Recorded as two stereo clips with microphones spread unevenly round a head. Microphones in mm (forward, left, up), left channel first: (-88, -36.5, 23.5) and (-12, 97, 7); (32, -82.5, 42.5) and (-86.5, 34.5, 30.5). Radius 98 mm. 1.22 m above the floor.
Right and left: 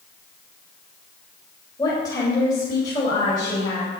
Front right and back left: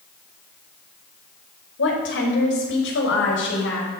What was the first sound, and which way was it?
A woman speaking, 45° right.